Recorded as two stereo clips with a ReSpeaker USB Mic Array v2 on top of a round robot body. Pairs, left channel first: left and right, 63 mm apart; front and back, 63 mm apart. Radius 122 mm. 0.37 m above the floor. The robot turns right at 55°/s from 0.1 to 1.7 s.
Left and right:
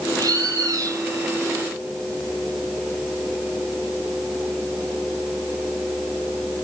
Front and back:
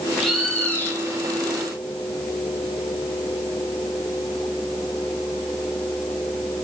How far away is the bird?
About 2.5 m.